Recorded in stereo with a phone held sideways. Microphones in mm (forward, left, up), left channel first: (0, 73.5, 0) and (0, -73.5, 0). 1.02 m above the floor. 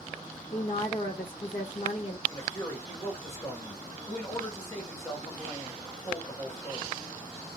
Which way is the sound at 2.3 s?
20° left (ahead or behind).